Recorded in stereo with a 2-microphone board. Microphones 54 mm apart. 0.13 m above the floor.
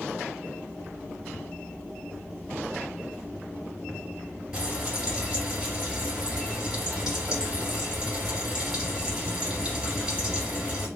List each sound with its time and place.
4.5 s frying: 15° right (ahead or behind), 3 m